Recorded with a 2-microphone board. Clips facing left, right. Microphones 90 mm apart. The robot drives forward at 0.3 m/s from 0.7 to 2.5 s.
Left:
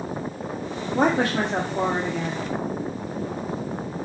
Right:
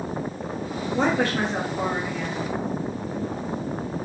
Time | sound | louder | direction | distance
0.9 | a woman speaking | left 2 dB | 45° left (ahead or behind) | 0.7 m